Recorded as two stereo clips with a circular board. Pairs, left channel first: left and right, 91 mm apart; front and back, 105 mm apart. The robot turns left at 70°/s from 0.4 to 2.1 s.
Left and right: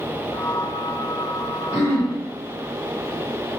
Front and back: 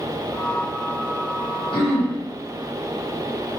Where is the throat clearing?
35° right, 1.6 m; by 2.1 s 60° right, 1.6 m.